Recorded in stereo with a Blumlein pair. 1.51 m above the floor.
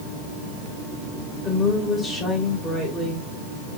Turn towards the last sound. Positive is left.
turn(degrees=15)